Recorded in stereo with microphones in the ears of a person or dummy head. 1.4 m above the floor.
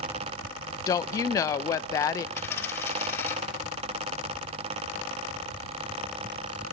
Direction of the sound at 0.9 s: 20° left (ahead or behind).